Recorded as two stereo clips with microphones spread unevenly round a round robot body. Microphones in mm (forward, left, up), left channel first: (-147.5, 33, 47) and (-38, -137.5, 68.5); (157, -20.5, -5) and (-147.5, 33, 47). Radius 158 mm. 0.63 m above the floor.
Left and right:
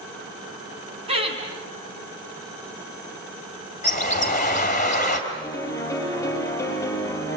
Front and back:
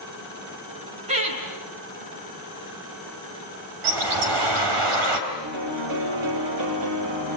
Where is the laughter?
120° right, 8 m.